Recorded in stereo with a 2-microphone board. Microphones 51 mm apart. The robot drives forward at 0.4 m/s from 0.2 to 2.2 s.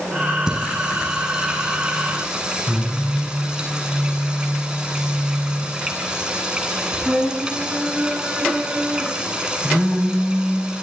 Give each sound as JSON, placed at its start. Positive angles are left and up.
{"t": 0.5, "sound": "singing", "side_deg": -15, "distance_m": 9.0}